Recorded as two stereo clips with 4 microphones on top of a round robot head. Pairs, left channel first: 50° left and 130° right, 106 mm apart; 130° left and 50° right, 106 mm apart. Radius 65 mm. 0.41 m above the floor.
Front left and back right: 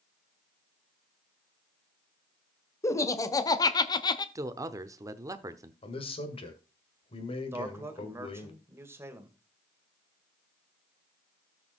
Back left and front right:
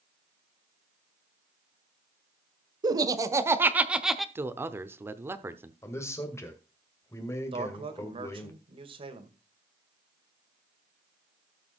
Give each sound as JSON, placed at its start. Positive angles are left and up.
{"t": 2.8, "sound": "laughter", "azimuth_deg": -5, "distance_m": 1.3}
{"t": 4.3, "sound": "a man speaking", "azimuth_deg": -100, "distance_m": 0.9}
{"t": 5.8, "sound": "a man speaking", "azimuth_deg": 70, "distance_m": 2.0}
{"t": 7.5, "sound": "a man speaking", "azimuth_deg": -65, "distance_m": 1.9}